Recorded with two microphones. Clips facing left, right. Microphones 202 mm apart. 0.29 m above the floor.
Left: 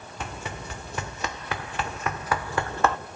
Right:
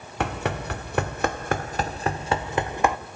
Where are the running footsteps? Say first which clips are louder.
Right 9 dB; 80° right, 1.1 m; by 3.0 s 15° right (ahead or behind), 1.2 m.